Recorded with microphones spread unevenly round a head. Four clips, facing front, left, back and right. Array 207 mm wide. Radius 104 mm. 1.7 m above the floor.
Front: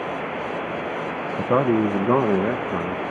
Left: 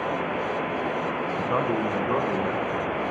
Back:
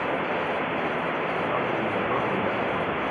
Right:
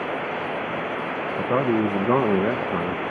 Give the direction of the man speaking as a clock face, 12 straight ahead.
1 o'clock.